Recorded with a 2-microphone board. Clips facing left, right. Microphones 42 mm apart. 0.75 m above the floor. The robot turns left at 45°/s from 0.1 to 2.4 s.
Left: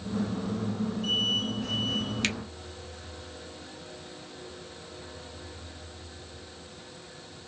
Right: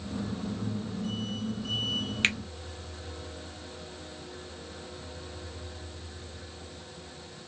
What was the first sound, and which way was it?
A finger snap, 30° right (ahead or behind).